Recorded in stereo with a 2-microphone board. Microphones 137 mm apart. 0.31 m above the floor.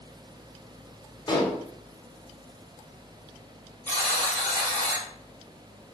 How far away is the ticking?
No ticking in this recording.